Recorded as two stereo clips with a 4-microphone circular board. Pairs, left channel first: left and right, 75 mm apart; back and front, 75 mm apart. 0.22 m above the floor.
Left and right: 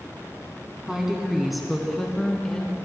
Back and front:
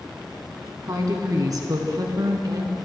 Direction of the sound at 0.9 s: 10° right.